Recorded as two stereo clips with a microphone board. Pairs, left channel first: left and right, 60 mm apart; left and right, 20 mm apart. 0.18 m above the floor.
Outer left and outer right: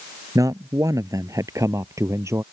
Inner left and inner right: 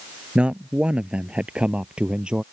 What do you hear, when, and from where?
0.3 s a man speaking: 65° right (ahead or behind); by 2.4 s 50° right (ahead or behind)